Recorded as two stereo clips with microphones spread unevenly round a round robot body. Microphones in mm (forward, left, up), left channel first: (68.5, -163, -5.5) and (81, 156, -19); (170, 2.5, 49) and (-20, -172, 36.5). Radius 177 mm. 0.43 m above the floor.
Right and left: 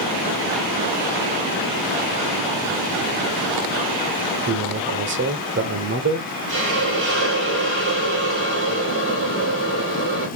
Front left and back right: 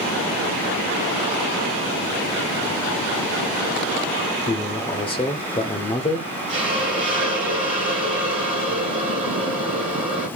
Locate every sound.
4.5 s a man speaking: 105° left, 1.1 m
6.5 s a hiss: 150° left, 3 m